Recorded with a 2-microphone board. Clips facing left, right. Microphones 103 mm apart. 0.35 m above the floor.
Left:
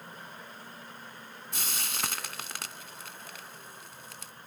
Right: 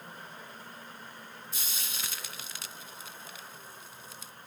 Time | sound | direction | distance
1.5 | frying | 65° left (ahead or behind) | ?